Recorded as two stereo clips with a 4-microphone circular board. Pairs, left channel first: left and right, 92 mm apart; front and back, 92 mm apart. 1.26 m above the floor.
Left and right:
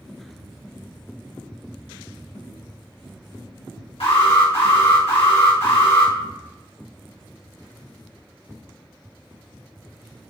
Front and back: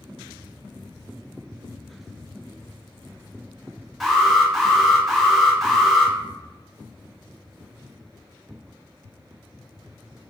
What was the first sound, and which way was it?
An alarm, 90° left.